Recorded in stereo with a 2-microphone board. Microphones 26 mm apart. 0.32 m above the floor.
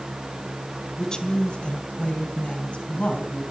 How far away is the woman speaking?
About 1.3 m.